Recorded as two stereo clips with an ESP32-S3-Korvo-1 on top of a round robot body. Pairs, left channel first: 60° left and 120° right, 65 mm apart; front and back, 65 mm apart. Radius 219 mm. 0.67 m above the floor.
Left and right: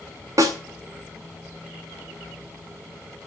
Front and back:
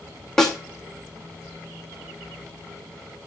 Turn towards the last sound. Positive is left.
turn(degrees=-85)